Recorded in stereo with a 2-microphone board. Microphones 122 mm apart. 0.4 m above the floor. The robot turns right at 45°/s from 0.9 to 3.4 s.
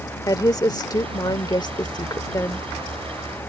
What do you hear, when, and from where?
0.3 s a woman speaking: 65° left; by 2.7 s 145° left